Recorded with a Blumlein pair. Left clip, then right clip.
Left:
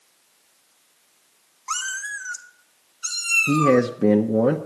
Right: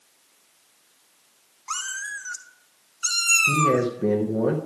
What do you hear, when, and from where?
1.7 s a cat meowing: 10° left, 1.6 m; by 3.8 s 35° right, 1.5 m
3.5 s a man speaking: 20° left, 0.9 m